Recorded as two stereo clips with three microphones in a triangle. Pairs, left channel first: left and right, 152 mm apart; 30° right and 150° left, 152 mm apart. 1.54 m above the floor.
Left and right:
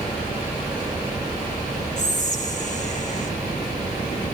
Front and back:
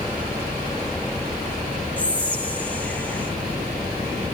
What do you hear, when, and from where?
2.0 s whispering: 50° left, 1.2 m